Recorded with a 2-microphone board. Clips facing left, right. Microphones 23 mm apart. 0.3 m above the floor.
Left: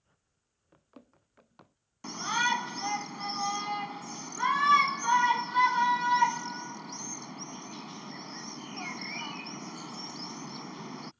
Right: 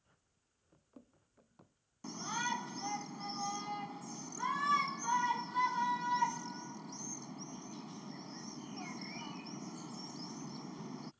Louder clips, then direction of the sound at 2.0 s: Left 9 dB; 45° left (ahead or behind).